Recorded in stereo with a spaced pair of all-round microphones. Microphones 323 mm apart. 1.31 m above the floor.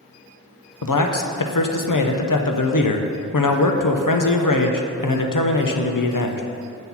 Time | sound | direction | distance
0.8 | a man speaking | 75° left (ahead or behind) | 0.6 m